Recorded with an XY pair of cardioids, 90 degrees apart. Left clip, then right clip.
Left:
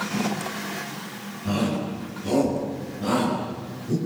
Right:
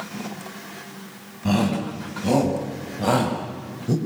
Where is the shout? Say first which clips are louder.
Right 3 dB; 70° right, 7 m.